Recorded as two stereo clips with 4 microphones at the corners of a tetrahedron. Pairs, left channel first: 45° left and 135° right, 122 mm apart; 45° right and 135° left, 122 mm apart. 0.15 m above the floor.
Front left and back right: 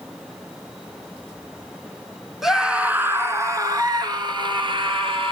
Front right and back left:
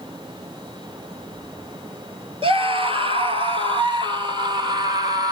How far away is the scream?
About 1.9 m.